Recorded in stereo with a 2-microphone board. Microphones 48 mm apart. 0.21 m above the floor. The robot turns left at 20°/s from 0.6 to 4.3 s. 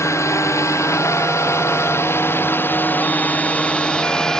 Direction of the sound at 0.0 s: 85° left.